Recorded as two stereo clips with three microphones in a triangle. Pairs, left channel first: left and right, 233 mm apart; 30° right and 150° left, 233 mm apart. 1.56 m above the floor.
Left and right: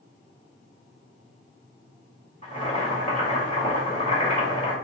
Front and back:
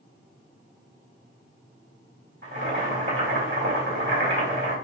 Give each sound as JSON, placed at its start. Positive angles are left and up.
{"t": 2.4, "sound": "boiling", "azimuth_deg": 145, "distance_m": 2.0}